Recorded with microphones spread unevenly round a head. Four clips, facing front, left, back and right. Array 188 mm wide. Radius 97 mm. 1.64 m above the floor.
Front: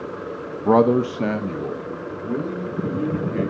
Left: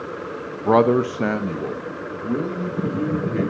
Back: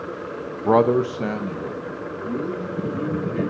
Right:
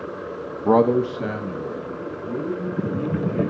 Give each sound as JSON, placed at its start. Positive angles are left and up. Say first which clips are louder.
{"t": 0.7, "sound": "a man speaking", "louder": "left 1 dB, front 1 dB", "azimuth_deg": 5, "distance_m": 0.6}